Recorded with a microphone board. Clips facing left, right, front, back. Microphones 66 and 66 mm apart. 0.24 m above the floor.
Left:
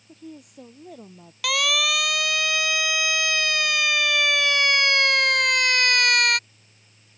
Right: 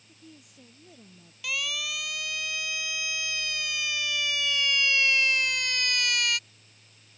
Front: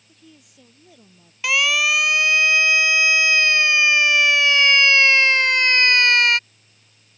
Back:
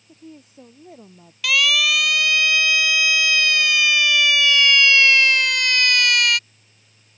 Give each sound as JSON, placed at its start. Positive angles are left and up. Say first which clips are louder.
{"t": 0.1, "sound": "a woman speaking", "louder": "left 11 dB, back 8 dB", "azimuth_deg": 125}
{"t": 1.4, "sound": "a siren", "louder": "left 10 dB, even", "azimuth_deg": 65}